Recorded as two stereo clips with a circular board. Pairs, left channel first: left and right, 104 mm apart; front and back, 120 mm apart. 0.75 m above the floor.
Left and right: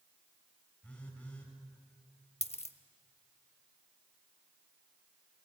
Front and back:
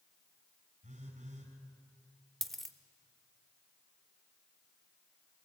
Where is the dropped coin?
90° left, 0.8 m.